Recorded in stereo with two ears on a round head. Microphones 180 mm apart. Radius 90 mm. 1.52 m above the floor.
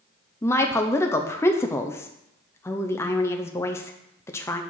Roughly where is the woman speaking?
Centre.